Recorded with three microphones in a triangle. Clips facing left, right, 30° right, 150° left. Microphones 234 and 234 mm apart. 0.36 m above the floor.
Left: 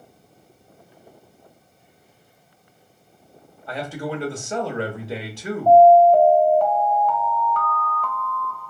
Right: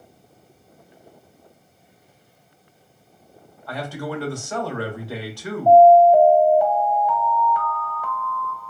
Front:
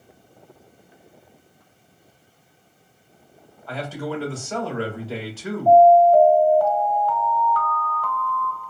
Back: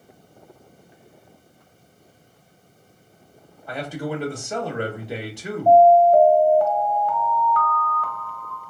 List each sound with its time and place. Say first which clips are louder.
3.7 s a man speaking: left 1 dB, back 1 dB; 105° left, 0.8 m
5.7 s an alarm: even, even; 155° right, 1.0 m